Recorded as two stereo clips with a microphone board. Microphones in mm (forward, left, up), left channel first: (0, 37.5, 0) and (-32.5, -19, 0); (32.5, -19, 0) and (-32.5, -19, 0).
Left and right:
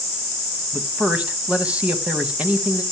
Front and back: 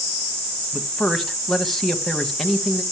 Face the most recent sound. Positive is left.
turn(degrees=-80)